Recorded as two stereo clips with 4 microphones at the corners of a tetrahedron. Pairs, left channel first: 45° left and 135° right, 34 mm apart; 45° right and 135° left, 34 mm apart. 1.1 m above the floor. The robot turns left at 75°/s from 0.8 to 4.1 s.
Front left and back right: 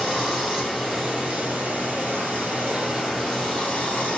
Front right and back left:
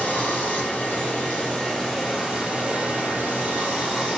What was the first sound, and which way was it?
Running water, 50° right.